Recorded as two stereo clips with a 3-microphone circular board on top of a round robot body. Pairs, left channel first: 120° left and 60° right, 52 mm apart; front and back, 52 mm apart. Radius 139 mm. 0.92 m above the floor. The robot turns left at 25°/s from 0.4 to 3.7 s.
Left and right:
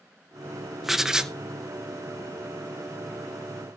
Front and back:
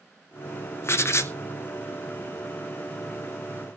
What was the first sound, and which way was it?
Writing, 25° left.